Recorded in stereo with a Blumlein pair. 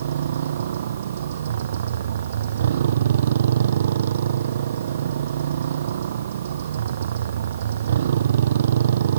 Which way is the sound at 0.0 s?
60° right.